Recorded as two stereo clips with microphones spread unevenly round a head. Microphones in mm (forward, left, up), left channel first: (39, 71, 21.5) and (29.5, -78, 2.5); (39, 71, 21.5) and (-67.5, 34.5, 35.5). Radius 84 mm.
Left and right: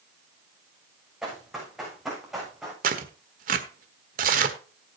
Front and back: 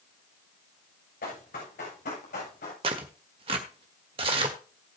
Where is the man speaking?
I don't hear a man speaking.